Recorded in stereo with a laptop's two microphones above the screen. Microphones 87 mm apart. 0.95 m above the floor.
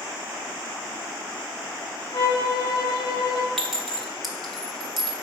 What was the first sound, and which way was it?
A violin, 50° left (ahead or behind).